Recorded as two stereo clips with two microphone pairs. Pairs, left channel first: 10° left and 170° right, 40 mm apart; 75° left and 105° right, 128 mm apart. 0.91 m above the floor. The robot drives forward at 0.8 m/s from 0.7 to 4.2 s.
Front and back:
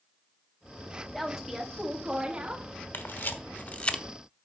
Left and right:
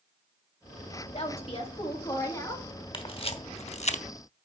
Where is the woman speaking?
100° left, 1.5 m; by 2.7 s 140° left, 2 m.